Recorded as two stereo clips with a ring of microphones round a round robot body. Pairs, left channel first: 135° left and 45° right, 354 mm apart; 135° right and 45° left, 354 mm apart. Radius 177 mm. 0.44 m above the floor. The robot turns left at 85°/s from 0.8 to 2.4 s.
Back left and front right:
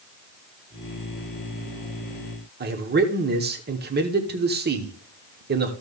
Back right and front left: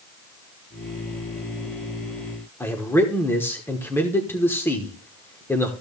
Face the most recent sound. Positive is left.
turn(degrees=-60)